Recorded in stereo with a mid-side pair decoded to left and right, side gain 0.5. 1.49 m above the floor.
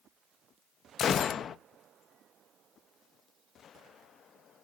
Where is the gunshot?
50° left, 0.6 m.